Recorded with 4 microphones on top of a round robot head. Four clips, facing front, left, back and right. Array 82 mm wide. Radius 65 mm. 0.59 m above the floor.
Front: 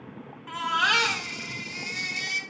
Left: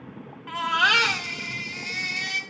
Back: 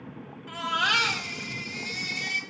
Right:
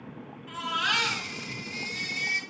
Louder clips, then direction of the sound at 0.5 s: Left 8 dB, front 2 dB; 60° left.